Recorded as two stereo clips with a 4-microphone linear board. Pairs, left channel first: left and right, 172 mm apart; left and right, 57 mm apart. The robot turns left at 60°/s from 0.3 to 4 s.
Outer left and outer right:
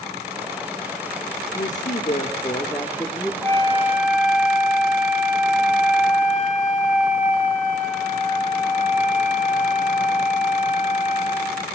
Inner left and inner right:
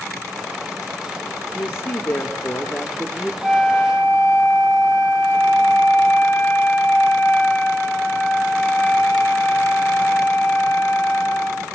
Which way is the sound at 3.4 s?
170° left.